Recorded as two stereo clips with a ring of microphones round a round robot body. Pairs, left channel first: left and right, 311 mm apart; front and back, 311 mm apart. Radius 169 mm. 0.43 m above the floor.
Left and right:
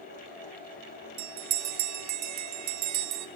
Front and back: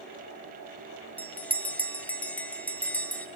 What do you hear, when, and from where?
1.2 s a bell: 85° right, 1.0 m